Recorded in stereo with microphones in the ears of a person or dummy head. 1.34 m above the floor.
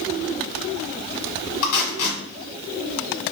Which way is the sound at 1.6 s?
75° left (ahead or behind).